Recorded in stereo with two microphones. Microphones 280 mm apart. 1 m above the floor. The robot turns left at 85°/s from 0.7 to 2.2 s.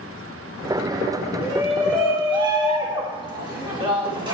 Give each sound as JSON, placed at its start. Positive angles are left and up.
{"t": 1.4, "sound": "a shout", "azimuth_deg": 50, "distance_m": 2.5}